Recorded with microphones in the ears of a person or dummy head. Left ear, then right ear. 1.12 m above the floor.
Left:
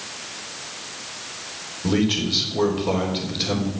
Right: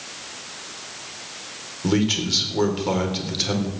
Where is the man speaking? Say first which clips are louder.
Even; 80° right, 4 m.